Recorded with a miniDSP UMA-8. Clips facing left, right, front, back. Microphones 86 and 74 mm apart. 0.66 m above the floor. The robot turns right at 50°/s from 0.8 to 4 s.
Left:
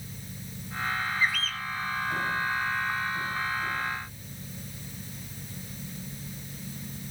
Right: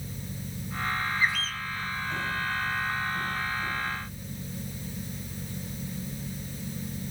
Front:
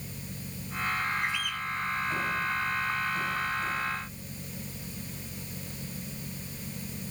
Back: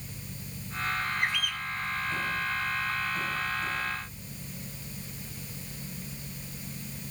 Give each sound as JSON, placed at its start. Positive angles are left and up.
{"t": 1.2, "sound": "a bird", "azimuth_deg": -160, "distance_m": 0.8}